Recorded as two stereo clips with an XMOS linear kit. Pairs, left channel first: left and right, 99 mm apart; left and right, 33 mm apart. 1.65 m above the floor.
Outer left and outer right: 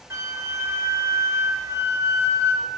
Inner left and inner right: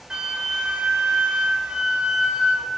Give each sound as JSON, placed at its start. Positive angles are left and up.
{"t": 0.1, "sound": "a flute", "side_deg": -30, "distance_m": 0.7}